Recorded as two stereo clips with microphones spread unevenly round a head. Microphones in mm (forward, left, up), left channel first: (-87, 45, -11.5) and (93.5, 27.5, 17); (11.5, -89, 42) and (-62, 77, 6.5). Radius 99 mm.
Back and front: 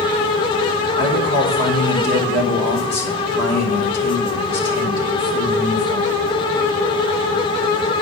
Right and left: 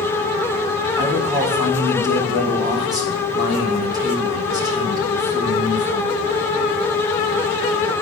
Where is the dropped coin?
I don't hear a dropped coin.